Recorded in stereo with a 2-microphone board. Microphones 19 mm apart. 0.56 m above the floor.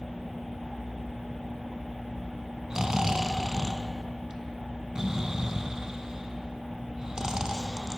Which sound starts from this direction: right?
Snoring, at 2.7 s.